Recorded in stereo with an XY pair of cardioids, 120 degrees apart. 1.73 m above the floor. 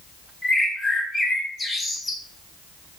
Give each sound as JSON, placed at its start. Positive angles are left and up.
{"t": 0.4, "sound": "a bird", "azimuth_deg": 20, "distance_m": 0.8}